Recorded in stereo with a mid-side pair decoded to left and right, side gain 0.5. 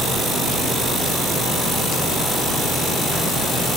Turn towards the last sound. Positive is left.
No sound to turn to.